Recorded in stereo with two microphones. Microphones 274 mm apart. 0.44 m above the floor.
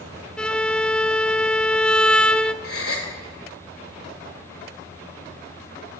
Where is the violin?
5° left (ahead or behind), 0.9 m.